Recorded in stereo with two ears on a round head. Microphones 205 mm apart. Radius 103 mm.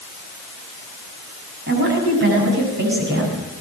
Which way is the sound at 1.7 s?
45° right (ahead or behind).